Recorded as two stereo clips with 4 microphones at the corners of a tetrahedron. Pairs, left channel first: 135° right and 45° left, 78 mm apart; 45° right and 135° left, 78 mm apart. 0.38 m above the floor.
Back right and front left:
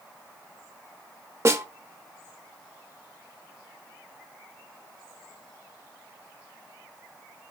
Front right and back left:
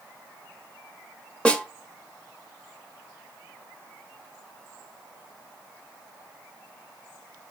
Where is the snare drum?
20° left, 0.5 m.